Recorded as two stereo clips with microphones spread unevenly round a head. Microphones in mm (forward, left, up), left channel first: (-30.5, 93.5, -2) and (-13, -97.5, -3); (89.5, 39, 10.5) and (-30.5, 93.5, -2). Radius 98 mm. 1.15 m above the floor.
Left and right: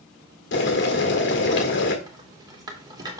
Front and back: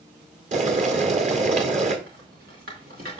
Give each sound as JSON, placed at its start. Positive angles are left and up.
{"t": 0.5, "sound": "boiling", "azimuth_deg": 125, "distance_m": 1.7}
{"t": 2.1, "sound": "a rattle", "azimuth_deg": -155, "distance_m": 2.0}